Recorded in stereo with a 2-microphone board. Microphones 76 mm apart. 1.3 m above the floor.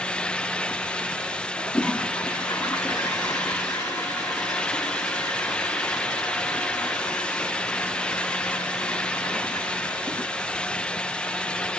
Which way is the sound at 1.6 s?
50° left (ahead or behind).